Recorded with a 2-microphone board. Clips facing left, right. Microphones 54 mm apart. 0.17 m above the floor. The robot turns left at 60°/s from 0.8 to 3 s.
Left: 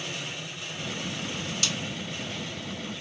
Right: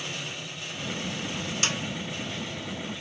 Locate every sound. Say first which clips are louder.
1.6 s a snare drum: right 4 dB; 35° right (ahead or behind), 0.5 m; by 1.8 s 40° right (ahead or behind), 0.5 m